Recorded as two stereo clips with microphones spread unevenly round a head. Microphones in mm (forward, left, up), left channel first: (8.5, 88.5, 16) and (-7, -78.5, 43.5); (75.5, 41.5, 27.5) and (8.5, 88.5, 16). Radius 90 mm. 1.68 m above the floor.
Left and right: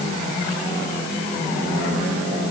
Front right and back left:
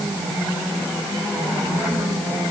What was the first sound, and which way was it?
Only background noise.